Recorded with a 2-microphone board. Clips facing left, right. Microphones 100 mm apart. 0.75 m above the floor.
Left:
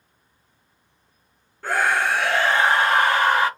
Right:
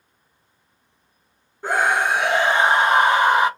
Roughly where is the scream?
Centre.